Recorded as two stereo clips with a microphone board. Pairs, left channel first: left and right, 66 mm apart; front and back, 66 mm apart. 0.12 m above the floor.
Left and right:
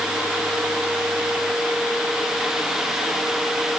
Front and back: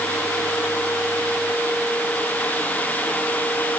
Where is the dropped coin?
I don't hear a dropped coin.